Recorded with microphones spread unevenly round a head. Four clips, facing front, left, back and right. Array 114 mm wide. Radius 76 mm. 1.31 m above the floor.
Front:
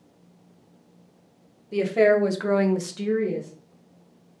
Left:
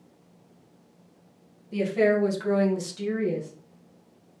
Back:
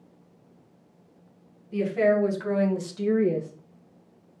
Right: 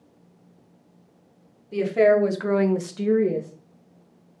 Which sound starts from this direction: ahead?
A woman speaking, at 1.7 s.